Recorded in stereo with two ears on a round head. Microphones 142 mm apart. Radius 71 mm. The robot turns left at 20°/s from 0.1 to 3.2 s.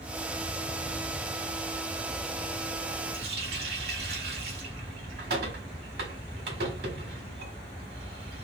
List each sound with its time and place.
3.1 s a running tap: 65° right (ahead or behind), 1.7 m